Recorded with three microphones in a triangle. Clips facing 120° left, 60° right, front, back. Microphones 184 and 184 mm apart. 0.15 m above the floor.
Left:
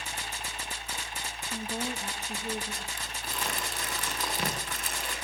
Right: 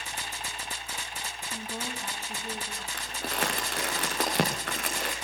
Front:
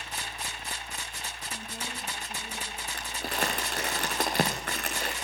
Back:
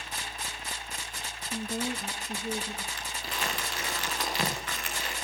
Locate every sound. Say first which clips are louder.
1.5 s a woman speaking: left 4 dB, back 11 dB; 165° right, 5.5 m
2.9 s crumpling: right 5 dB, front 4 dB; 35° right, 7.5 m